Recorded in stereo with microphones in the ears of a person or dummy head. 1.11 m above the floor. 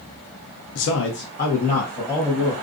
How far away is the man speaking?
About 0.6 m.